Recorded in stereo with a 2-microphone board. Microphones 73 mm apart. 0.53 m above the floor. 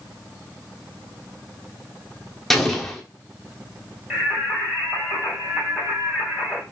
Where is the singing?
15° right (ahead or behind), 2.0 m.